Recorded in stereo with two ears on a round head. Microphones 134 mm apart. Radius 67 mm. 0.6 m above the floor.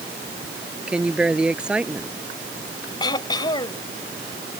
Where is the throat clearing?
30° left (ahead or behind).